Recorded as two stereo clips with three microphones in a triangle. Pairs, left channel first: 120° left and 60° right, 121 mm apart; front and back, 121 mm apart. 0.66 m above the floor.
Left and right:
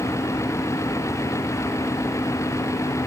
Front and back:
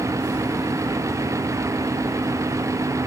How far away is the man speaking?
No man speaking in this recording.